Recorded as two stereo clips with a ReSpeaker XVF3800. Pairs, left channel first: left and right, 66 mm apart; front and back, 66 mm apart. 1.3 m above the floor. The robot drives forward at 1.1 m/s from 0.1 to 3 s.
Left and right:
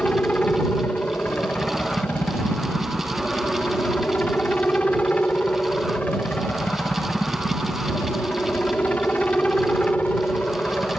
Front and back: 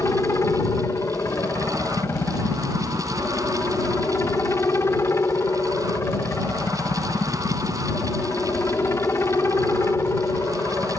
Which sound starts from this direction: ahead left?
A helicopter, at 0.0 s.